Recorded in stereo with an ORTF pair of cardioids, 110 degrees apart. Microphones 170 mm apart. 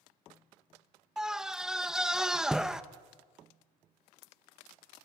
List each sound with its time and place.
1.2 s a scream: 5° right, 1.1 m